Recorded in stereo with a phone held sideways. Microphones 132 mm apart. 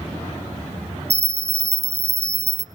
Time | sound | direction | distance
1.1 | a bell | 55° right (ahead or behind) | 0.7 m